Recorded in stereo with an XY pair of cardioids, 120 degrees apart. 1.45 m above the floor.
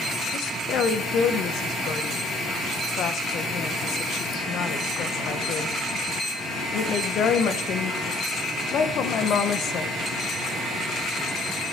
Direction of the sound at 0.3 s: 60° left.